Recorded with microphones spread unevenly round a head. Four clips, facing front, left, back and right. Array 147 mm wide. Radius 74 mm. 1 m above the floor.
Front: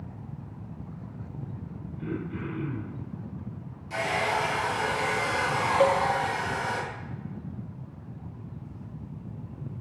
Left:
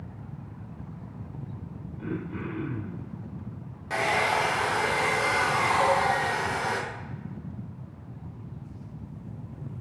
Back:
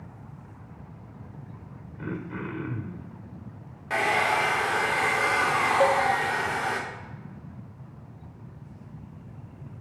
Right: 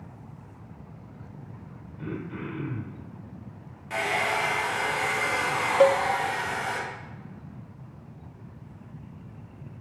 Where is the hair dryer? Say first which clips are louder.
Left 2 dB, back 3 dB; 155° left, 1.4 m.